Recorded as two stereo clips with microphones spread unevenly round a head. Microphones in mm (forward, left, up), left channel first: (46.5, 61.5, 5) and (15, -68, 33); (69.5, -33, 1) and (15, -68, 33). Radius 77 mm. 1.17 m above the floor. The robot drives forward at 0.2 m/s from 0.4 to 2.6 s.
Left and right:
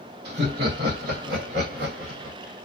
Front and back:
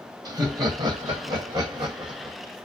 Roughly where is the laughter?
Behind right.